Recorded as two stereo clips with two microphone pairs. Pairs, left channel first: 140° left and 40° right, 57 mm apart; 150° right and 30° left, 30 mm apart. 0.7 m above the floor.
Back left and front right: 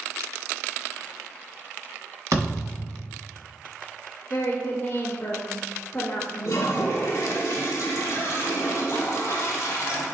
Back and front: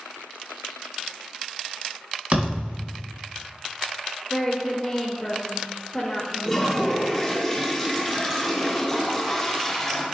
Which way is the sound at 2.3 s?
15° right.